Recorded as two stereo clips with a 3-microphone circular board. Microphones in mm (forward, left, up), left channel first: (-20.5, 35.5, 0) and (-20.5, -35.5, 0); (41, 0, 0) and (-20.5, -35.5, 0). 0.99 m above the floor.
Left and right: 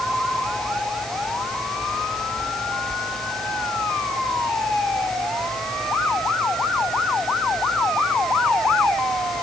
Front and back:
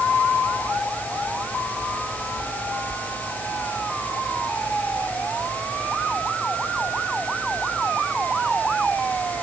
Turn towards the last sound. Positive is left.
No sound to turn to.